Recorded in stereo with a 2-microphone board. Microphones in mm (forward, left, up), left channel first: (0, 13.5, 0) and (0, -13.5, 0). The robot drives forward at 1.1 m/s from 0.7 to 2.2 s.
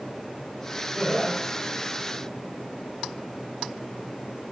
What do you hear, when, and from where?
0.9 s laughter: 10° right (ahead or behind), 3.5 m